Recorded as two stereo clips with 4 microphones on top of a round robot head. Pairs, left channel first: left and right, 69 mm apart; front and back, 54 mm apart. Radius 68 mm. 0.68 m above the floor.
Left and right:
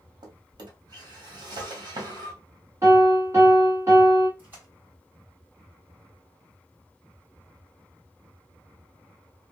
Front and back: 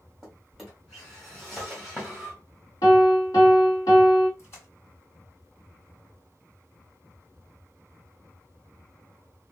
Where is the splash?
30° right, 3 m.